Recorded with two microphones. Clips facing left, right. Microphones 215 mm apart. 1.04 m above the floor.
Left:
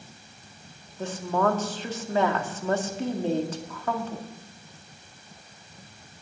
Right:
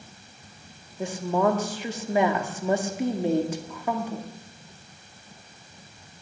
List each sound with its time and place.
1.0 s a woman speaking: 15° right (ahead or behind), 1.7 m